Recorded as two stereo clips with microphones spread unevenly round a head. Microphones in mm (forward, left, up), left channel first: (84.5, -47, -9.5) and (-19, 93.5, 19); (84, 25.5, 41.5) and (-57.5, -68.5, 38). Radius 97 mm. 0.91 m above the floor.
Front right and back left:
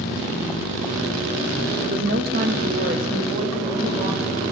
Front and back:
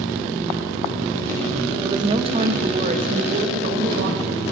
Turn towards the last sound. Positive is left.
turn(degrees=-170)